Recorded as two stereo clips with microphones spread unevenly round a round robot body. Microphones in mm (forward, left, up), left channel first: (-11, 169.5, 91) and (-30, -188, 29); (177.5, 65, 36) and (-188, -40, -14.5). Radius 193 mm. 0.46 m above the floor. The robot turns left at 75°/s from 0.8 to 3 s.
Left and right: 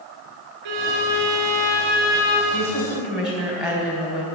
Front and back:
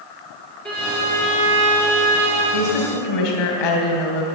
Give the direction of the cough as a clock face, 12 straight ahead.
I don't hear a cough.